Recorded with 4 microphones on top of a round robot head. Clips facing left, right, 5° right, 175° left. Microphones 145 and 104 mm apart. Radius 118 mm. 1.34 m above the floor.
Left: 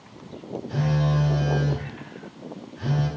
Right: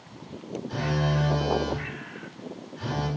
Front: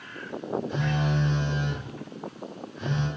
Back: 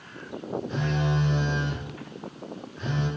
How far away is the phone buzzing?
About 1.1 m.